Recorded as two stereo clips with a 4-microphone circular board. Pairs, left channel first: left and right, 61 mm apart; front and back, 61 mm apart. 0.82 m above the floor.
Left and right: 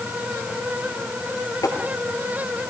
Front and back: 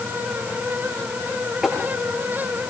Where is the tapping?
100° left, 5.5 m.